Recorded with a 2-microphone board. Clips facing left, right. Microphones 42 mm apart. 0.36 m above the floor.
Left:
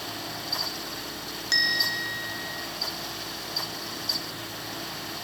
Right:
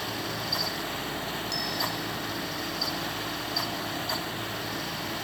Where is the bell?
60° left (ahead or behind).